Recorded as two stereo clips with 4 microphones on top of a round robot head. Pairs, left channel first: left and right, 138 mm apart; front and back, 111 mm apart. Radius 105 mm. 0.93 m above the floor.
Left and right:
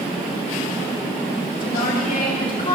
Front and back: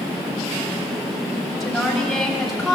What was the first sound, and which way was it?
A woman speaking, 90° left.